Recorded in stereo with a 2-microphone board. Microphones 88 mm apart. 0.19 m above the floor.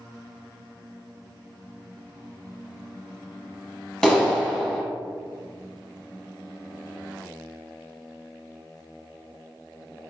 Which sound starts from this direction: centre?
A clap, at 4.0 s.